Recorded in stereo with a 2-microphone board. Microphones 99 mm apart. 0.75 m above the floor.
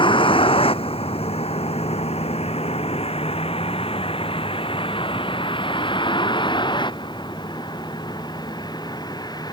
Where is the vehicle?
60° left (ahead or behind); by 9.5 s 40° left (ahead or behind).